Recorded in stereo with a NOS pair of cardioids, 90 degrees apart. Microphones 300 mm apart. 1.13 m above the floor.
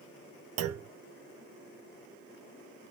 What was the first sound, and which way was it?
A clunk, 55° right.